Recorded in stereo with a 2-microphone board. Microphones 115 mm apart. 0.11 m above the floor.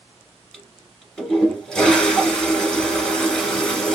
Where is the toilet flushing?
5° left (ahead or behind), 1.7 m.